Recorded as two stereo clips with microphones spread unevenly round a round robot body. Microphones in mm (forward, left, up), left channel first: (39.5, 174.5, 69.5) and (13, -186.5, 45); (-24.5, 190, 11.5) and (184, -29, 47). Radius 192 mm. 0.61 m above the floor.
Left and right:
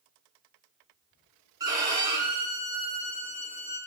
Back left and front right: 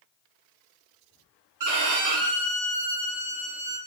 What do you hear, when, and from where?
1.6 s a violin: 15° right, 0.6 m